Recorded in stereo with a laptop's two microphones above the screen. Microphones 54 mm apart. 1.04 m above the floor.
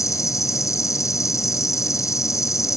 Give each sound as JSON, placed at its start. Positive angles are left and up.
{"t": 0.0, "sound": "an insect", "side_deg": 70}